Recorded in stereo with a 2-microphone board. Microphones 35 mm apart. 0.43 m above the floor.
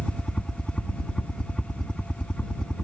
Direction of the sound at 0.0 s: 20° left (ahead or behind).